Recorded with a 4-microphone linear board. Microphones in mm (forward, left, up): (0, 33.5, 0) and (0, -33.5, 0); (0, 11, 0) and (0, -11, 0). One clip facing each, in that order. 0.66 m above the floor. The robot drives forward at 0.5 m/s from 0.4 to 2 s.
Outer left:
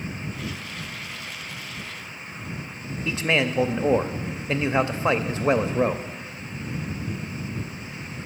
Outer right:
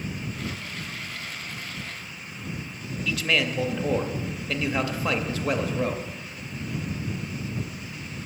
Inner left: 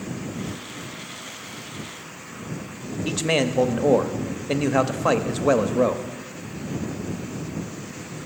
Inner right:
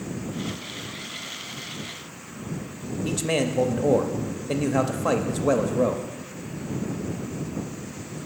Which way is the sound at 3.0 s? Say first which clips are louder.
Outer left 2 dB, inner left 3 dB; 25° left (ahead or behind).